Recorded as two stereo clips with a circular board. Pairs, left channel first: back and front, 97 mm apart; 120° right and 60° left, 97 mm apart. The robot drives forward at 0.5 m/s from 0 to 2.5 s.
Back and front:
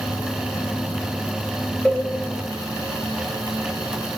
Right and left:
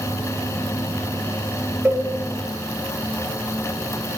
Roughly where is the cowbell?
Left.